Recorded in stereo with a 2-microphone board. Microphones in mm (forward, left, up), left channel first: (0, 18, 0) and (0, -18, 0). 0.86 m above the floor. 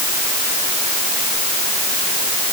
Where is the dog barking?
No dog barking in this recording.